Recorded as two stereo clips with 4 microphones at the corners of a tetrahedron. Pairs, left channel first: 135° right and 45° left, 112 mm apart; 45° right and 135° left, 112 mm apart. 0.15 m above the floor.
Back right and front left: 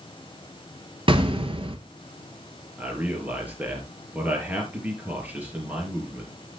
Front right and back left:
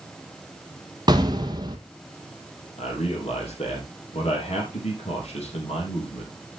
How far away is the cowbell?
No cowbell in this recording.